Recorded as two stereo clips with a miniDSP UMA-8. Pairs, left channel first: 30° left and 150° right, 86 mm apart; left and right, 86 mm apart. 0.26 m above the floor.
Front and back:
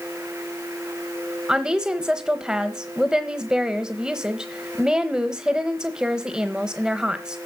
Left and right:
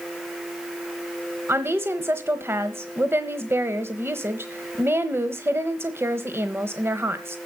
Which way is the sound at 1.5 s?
80° right.